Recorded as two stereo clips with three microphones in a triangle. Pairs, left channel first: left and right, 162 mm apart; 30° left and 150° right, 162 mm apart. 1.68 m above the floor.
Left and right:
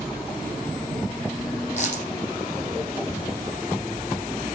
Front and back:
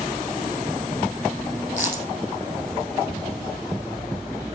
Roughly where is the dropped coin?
Behind left.